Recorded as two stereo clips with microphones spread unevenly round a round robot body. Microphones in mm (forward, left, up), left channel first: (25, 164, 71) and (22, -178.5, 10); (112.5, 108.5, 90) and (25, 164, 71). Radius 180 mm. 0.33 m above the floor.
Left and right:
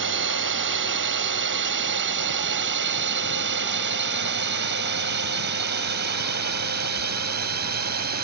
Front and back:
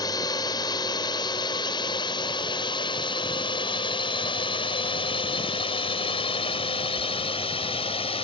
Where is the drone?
80° right; by 8.2 s 45° right.